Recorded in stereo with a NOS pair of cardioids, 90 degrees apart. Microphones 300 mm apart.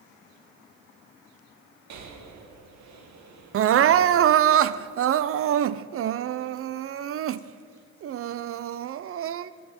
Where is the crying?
50° right, 0.5 m.